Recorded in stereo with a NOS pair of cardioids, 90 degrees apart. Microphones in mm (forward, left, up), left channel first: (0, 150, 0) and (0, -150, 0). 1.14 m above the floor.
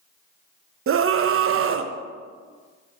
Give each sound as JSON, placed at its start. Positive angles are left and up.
{"t": 0.9, "sound": "a scream", "azimuth_deg": -45, "distance_m": 0.9}